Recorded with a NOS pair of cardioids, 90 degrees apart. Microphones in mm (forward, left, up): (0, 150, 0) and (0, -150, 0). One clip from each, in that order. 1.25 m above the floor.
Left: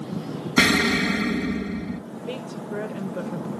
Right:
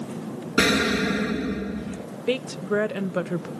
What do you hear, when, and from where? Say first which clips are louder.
0.6 s an explosion: left 2 dB; 50° left, 1.3 m
2.3 s a woman speaking: right 8 dB; 55° right, 0.7 m